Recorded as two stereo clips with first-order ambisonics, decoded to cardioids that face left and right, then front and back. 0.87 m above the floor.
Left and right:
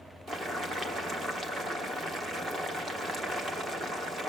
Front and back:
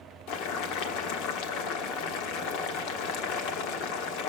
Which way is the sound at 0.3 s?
20° right.